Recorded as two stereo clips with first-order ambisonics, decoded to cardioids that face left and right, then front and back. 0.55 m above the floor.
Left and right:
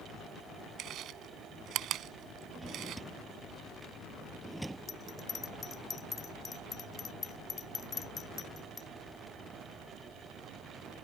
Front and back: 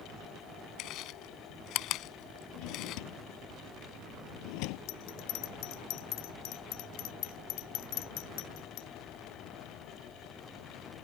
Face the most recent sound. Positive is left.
turn(degrees=20)